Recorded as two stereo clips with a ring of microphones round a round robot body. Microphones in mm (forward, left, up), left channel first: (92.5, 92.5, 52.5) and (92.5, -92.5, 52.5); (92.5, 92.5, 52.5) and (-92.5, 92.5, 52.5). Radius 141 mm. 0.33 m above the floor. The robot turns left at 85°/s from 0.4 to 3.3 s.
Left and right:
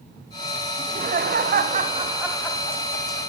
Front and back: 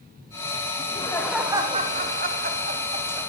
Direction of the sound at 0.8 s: 45° right.